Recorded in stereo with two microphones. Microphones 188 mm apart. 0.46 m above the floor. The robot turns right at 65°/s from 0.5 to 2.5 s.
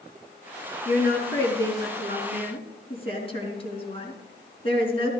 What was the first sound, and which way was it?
A woman speaking, 40° left.